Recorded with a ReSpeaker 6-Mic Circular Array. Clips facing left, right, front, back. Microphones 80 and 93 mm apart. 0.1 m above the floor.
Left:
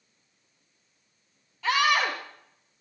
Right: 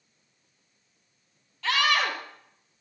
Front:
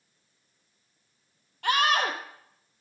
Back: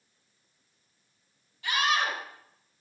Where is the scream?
10° left, 3 m.